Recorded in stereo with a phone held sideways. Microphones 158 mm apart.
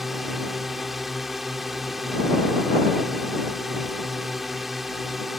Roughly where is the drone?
Centre.